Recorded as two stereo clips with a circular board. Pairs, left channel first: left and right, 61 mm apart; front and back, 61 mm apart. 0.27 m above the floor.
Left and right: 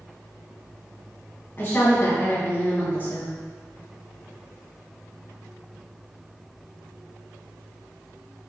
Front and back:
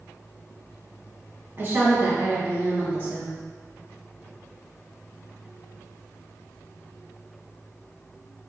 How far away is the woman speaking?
About 1.9 m.